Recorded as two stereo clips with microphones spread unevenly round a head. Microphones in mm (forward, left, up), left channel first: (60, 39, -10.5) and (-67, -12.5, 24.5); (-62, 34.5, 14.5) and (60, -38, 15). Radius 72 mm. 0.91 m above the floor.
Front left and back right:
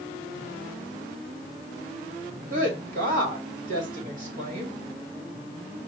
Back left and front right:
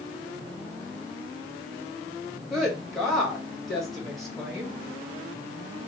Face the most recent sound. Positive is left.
turn(degrees=-120)